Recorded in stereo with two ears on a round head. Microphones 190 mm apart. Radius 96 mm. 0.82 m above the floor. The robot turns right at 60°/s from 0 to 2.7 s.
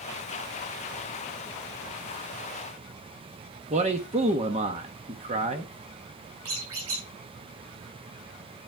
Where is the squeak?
80° right, 6.5 m.